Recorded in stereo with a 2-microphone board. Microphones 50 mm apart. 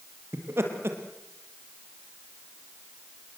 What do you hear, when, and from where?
0.3 s laughter: 60° right (ahead or behind), 4.5 m